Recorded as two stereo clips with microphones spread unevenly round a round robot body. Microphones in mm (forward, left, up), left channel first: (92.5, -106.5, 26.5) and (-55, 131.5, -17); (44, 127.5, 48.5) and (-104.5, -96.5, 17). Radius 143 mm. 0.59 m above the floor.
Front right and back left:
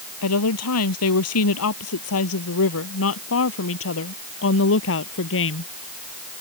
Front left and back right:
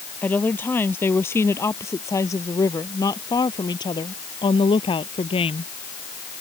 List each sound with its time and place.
0.2 s a woman speaking: 25° right; by 5.7 s 15° right